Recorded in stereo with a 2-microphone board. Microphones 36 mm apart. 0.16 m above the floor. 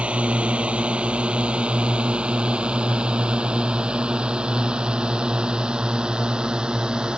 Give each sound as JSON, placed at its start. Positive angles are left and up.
{"t": 0.0, "sound": "a drone", "side_deg": -30}